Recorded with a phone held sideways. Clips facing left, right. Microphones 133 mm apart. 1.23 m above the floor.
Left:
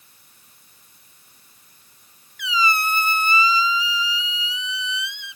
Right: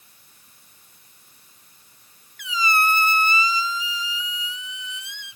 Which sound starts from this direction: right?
A squeak, at 2.4 s.